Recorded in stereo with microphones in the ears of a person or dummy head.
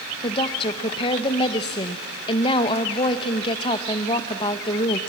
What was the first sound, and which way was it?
A woman speaking, 30° left (ahead or behind).